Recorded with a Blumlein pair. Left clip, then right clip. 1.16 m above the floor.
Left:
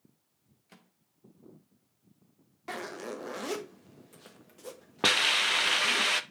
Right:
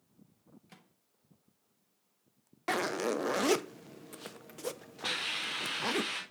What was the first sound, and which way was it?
A microwave, 5° right.